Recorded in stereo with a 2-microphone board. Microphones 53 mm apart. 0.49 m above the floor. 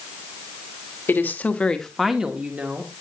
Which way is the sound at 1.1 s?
40° left (ahead or behind).